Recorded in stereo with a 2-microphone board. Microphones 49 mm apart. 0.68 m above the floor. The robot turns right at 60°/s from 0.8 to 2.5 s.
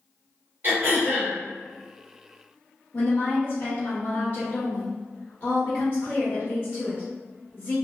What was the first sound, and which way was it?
Throat clearing, 110° right.